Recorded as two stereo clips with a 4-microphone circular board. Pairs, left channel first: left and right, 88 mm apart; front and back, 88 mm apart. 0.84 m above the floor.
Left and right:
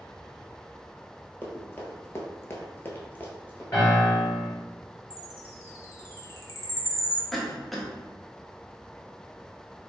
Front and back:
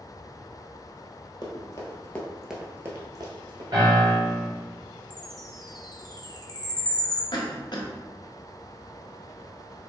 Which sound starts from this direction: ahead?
A cough, at 7.3 s.